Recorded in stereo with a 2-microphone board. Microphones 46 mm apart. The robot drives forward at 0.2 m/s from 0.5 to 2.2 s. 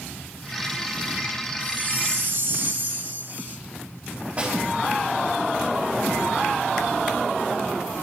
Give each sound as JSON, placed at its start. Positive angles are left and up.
{"t": 1.6, "sound": "a chime", "side_deg": -45, "distance_m": 0.8}
{"t": 4.4, "sound": "a snare drum", "side_deg": -30, "distance_m": 3.5}